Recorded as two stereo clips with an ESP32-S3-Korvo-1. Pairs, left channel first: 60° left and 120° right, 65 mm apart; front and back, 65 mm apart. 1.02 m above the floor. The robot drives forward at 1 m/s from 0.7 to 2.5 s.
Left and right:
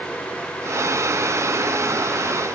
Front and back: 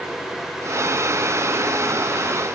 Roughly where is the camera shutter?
No camera shutter in this recording.